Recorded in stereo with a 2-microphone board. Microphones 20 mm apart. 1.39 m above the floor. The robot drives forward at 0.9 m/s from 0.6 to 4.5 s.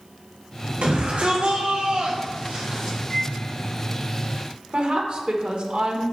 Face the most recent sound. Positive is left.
turn(degrees=-80)